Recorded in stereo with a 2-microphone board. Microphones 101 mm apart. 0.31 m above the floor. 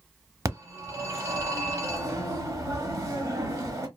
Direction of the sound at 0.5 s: 30° right (ahead or behind).